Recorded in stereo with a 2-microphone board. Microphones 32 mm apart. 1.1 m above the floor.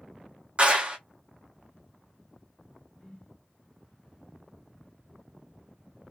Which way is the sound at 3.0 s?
20° left (ahead or behind).